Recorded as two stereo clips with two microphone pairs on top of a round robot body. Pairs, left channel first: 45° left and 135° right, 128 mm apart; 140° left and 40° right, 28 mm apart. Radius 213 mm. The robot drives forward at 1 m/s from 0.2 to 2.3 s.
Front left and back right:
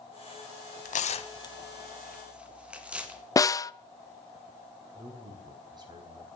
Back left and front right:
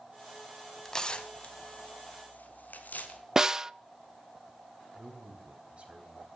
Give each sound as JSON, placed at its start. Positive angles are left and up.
{"t": 0.8, "sound": "tearing paper", "azimuth_deg": 65, "distance_m": 0.9}
{"t": 3.4, "sound": "a snare drum", "azimuth_deg": 0, "distance_m": 0.6}
{"t": 5.0, "sound": "a man speaking", "azimuth_deg": -85, "distance_m": 4.0}